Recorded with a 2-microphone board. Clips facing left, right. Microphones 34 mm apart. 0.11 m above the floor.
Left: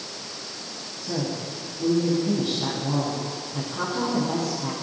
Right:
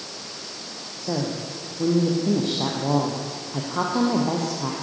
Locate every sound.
1.0 s a woman speaking: 55° right (ahead or behind), 6 m